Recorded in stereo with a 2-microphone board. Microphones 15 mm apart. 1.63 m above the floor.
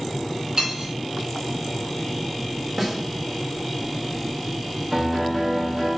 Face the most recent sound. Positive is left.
turn(degrees=-5)  # may be behind; listen again after turning